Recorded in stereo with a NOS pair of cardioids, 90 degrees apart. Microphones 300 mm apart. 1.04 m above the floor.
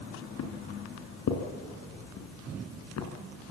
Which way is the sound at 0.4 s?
65° left.